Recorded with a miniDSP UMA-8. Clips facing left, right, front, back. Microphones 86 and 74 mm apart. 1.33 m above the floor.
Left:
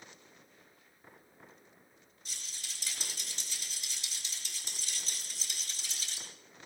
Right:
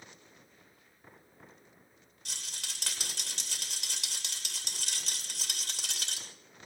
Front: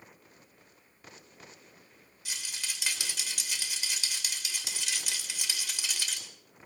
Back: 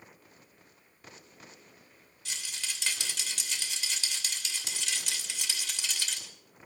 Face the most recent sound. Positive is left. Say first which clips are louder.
# right 4 dB, even
turn(degrees=-80)